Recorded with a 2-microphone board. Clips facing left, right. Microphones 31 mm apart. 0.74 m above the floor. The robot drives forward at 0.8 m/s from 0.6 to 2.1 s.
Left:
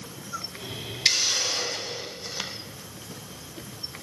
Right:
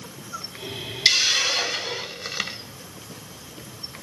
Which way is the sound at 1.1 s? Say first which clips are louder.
Right 5 dB; 60° right (ahead or behind).